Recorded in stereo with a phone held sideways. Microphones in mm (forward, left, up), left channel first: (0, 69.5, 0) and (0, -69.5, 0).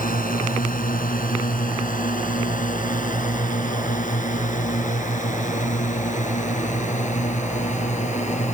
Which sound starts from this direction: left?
A drone, at 0.0 s.